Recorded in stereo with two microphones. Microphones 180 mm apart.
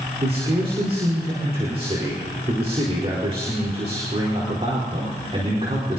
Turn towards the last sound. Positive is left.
turn(degrees=-35)  # may be behind; listen again after turning